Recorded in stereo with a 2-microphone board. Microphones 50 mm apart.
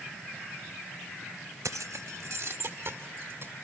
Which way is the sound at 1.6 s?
75° right (ahead or behind).